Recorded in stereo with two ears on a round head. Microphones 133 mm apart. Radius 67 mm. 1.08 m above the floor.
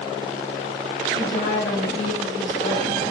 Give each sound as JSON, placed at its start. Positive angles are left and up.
{"t": 1.1, "sound": "a woman speaking", "side_deg": 55, "distance_m": 1.7}